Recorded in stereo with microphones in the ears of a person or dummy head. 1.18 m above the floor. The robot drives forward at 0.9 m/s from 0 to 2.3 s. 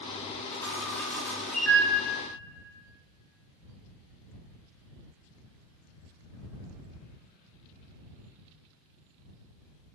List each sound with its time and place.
0.5 s a camera shutter: 15° left (ahead or behind), 2.0 m; by 1.8 s 10° left (ahead or behind), 3 m